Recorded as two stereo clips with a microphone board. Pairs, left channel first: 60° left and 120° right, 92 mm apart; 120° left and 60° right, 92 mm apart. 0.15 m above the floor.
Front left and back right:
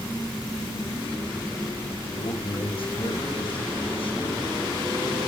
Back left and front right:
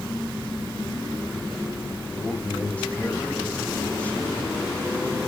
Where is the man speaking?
45° left, 6 m.